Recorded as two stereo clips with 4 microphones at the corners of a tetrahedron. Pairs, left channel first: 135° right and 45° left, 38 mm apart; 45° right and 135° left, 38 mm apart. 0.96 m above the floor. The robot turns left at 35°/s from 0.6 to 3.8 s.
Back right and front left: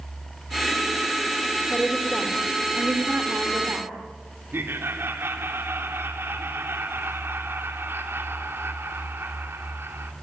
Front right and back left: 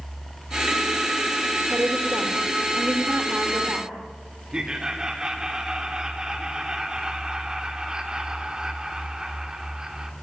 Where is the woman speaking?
140° left, 2.5 m; by 3.9 s 65° left, 2.5 m.